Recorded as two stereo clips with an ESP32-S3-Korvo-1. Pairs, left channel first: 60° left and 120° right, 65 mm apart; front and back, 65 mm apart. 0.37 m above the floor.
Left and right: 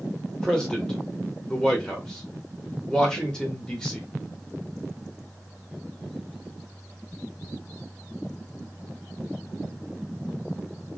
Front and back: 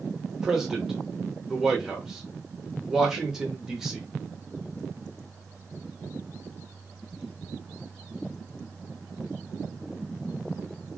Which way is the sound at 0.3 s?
115° left.